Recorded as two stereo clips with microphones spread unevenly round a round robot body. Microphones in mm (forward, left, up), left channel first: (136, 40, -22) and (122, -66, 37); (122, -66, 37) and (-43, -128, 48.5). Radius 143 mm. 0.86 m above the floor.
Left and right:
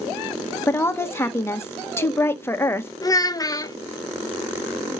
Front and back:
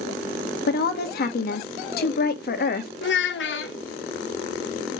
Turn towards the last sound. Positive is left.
turn(degrees=25)